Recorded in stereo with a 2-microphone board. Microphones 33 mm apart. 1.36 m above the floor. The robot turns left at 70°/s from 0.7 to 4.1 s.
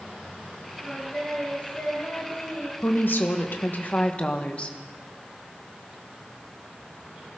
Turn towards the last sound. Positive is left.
turn(degrees=40)